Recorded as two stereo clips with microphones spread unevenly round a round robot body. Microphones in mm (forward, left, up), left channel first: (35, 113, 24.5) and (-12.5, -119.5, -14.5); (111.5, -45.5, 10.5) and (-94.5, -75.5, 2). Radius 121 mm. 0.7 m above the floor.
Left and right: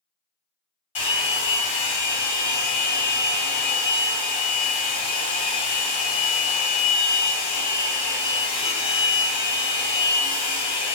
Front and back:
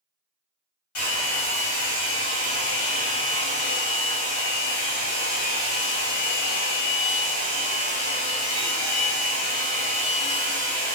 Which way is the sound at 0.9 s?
15° left.